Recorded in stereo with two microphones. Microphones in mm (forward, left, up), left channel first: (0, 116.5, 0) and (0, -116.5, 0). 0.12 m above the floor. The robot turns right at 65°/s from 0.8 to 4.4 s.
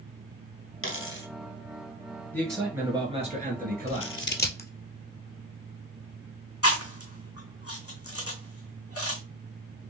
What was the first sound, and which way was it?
A dropped coin, 65° left (ahead or behind).